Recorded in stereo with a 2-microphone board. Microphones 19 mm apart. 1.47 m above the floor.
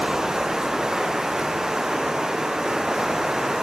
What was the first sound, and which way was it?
Running water, 40° right (ahead or behind).